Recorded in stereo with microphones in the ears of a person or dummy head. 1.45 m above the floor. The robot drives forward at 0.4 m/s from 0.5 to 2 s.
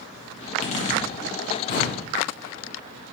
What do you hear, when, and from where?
0.4 s a zipper: 40° left (ahead or behind), 1.1 m; by 2.0 s 65° left (ahead or behind), 0.8 m